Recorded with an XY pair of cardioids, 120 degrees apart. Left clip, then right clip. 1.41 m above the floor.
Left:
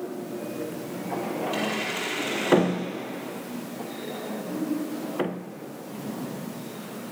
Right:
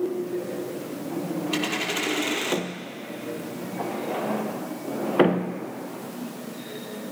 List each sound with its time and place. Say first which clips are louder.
1.5 s a dropped coin: right 4 dB; 40° right, 5.5 m